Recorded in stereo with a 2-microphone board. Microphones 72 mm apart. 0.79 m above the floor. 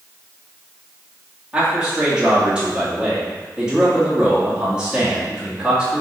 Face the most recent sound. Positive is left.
turn(degrees=-10)  # may be behind; listen again after turning